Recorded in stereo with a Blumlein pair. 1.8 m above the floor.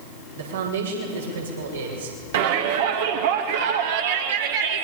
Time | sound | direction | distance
0.3 | a man speaking | 70° right | 7.5 m
2.3 | a shout | 55° right | 3 m